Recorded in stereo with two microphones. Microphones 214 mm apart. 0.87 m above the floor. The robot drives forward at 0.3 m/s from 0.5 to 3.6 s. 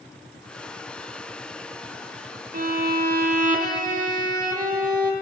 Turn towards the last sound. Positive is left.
turn(degrees=-40)  # may be behind; listen again after turning